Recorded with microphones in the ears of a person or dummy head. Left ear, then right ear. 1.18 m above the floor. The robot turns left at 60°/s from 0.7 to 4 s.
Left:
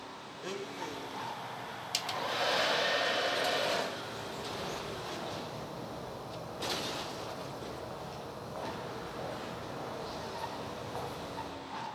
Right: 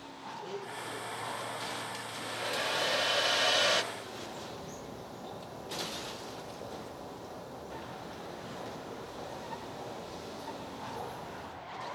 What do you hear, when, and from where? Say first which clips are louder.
0.4 s a blender: left 2 dB; 140° left, 1.0 m; by 1.2 s 105° left, 1.0 m
1.9 s a hair dryer: left 5 dB; 50° left, 0.5 m; by 3.8 s 65° right, 0.5 m
3.9 s a bird: left 2 dB; 80° left, 5 m